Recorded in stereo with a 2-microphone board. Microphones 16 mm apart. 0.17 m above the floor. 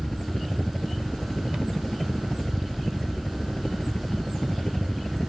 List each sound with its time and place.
0.0 s a helicopter: 60° left (ahead or behind)